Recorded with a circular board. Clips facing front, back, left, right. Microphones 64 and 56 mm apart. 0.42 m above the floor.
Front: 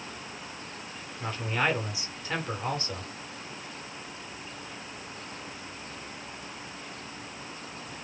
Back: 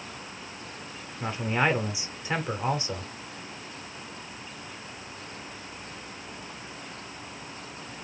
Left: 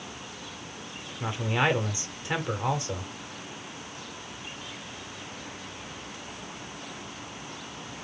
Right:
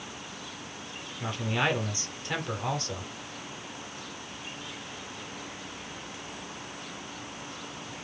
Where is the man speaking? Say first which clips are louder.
Back 3 dB, left 2 dB; 140° left, 1.5 m.